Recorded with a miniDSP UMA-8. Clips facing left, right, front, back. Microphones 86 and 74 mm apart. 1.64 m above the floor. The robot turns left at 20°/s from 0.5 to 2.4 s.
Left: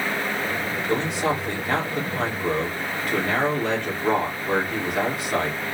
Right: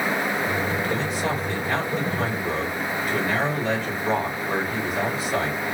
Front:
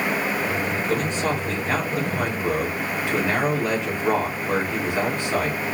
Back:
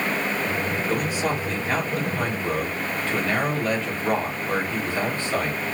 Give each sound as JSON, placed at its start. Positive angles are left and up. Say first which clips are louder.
{"t": 0.9, "sound": "a man speaking", "louder": "left 2 dB, front 1 dB", "azimuth_deg": 105, "distance_m": 3.0}